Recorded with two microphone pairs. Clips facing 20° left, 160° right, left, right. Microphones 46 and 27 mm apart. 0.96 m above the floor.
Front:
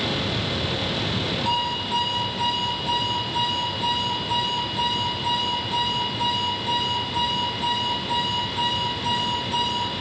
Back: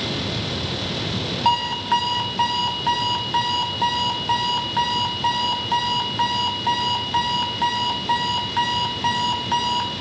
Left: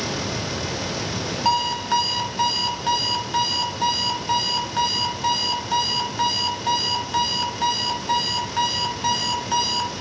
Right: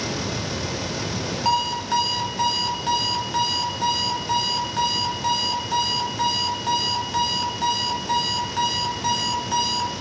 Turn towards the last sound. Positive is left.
turn(degrees=170)